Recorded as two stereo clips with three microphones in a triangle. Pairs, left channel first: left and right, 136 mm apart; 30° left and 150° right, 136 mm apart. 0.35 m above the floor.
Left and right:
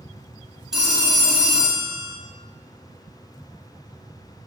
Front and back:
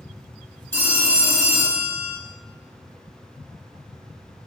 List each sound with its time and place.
0.7 s a phone ringing: 10° right, 0.7 m